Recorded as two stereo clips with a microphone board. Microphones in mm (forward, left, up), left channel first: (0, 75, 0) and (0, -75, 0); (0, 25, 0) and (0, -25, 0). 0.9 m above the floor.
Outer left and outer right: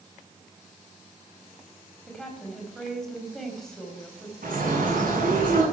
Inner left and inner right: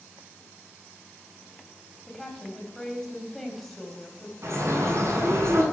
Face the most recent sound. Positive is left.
turn(degrees=-65)  # may be behind; listen again after turning